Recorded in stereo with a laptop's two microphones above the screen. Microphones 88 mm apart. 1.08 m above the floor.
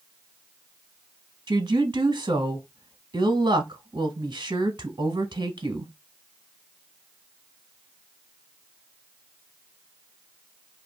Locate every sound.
1.5 s a woman speaking: 60° right (ahead or behind), 0.9 m